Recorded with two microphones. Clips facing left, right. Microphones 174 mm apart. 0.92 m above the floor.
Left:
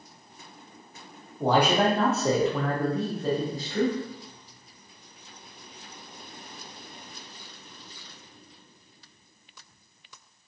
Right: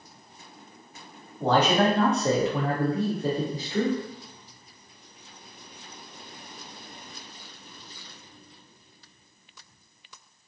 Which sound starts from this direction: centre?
A man speaking, at 1.4 s.